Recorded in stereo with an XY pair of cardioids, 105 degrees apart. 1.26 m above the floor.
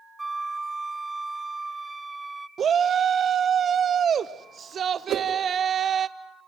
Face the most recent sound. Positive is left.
turn(degrees=-65)